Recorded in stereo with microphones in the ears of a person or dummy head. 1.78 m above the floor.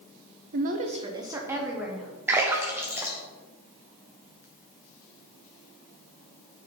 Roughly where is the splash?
Centre.